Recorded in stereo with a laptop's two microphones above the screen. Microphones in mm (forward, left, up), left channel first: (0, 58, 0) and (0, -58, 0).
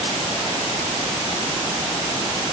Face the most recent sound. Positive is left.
No sound to turn to.